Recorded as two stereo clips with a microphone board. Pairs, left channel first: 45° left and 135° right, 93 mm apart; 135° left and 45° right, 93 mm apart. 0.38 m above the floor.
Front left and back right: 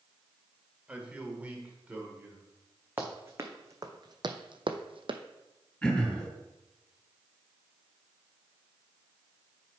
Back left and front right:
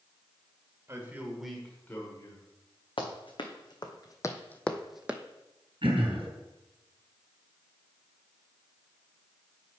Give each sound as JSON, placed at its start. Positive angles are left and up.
{"t": 0.9, "sound": "a man speaking", "azimuth_deg": -70, "distance_m": 1.7}
{"t": 3.0, "sound": "running footsteps", "azimuth_deg": 160, "distance_m": 1.8}
{"t": 5.8, "sound": "throat clearing", "azimuth_deg": -30, "distance_m": 3.0}